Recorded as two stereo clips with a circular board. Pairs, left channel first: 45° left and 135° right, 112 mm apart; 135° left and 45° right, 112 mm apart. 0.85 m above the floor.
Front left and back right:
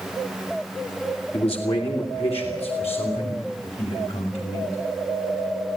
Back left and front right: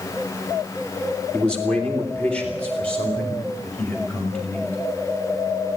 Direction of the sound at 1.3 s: 55° left.